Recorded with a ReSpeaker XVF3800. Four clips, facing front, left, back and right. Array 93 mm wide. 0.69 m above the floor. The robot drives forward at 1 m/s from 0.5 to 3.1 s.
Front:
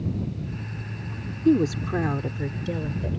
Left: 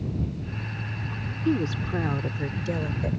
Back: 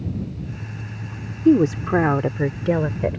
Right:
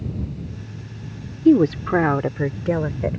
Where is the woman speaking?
110° right; by 3.2 s 150° right.